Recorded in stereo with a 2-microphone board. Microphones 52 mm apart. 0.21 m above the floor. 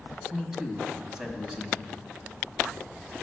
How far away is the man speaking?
About 1.1 m.